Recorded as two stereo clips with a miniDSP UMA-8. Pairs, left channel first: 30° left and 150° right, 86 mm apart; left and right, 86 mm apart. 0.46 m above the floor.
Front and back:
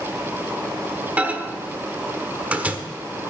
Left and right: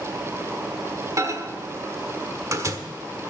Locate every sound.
1.2 s a microwave: 90° right, 1.3 m